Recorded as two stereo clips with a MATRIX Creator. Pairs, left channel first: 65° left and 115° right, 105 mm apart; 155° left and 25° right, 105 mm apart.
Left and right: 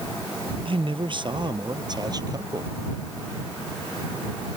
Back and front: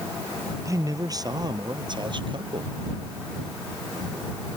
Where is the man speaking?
80° right; by 2.7 s 55° right.